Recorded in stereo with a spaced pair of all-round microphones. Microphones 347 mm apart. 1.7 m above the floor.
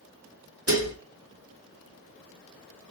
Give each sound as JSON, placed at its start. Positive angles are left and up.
{"t": 0.7, "sound": "dishes clattering", "side_deg": -40, "distance_m": 1.8}